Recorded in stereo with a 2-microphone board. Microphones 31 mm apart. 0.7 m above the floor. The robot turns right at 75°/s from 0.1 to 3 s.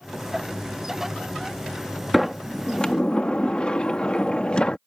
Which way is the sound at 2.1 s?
10° right.